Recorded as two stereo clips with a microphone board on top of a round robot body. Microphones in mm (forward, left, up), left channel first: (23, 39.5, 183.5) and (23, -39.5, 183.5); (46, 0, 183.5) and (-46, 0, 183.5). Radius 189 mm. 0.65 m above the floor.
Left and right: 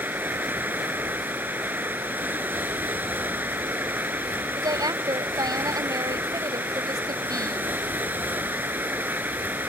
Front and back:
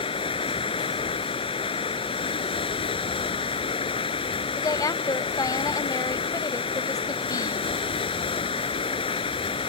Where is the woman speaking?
50° right.